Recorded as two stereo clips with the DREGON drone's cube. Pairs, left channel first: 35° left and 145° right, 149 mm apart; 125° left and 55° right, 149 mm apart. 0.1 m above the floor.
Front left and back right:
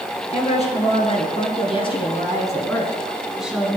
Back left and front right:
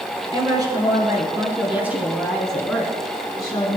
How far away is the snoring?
I don't hear snoring.